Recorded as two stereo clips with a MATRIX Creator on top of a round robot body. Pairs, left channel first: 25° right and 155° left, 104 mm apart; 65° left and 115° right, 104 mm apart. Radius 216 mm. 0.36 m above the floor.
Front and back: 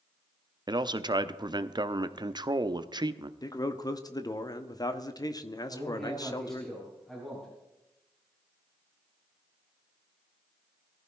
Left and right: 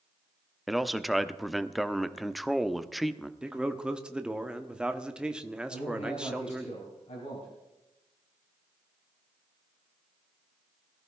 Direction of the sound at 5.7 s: 65° left.